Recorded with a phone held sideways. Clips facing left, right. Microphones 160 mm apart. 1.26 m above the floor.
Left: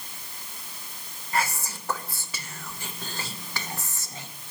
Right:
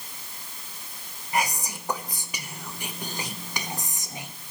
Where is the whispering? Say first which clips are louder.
Right 1 dB; 15° right (ahead or behind), 0.8 m.